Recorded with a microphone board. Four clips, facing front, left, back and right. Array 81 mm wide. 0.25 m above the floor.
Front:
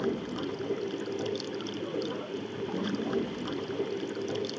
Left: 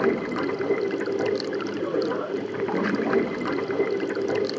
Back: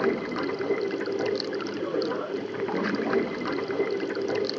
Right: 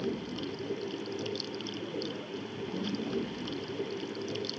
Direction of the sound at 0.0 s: 120° left.